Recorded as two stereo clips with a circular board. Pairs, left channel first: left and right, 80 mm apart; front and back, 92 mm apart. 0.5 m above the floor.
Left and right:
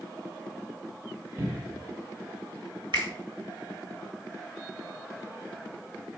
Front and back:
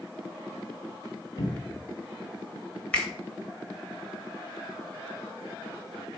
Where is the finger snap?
80° right, 1.8 m.